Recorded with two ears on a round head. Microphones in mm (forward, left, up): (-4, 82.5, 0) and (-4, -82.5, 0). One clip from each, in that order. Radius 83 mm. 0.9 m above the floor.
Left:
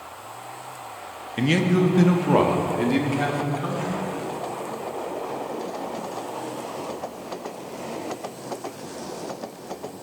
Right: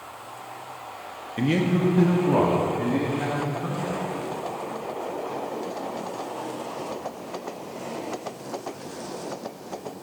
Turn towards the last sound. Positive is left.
turn(degrees=75)  # may be behind; listen again after turning